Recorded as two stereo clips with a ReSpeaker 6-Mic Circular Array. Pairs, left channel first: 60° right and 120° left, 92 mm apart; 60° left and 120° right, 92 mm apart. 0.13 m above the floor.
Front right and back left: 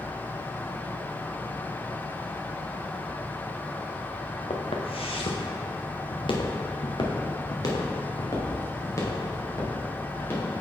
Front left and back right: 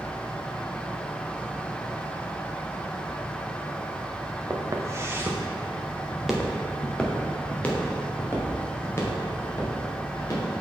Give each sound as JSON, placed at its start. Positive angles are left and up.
{"t": 4.5, "sound": "footsteps", "azimuth_deg": -70, "distance_m": 1.4}